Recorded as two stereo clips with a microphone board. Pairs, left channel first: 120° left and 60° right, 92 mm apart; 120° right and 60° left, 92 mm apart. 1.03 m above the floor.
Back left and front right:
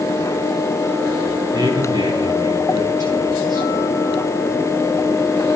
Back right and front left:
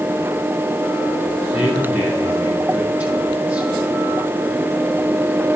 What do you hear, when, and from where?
1.5 s a man speaking: 10° right, 6 m